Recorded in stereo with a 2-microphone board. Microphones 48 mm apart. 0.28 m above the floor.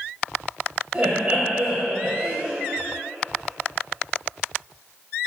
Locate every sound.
0.9 s laughter: 25° right (ahead or behind), 1.7 m